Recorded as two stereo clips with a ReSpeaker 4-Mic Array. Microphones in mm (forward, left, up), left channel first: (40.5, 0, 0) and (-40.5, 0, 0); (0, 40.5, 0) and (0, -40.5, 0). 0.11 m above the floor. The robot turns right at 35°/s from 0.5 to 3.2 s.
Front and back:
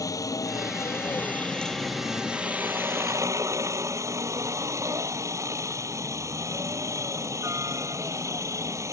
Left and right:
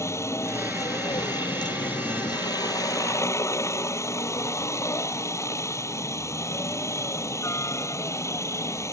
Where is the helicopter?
40° left; by 8.9 s 135° left.